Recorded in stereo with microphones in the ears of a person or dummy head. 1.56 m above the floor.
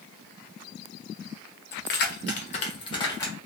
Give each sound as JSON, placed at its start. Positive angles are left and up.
{"t": 1.7, "sound": "keys jangling", "side_deg": 55, "distance_m": 0.8}